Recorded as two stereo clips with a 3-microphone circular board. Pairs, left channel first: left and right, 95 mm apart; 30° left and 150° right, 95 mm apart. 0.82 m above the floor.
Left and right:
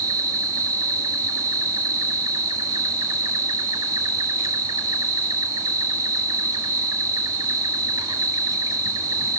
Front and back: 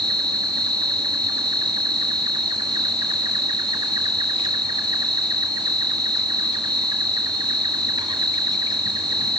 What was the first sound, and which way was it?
An insect, 130° right.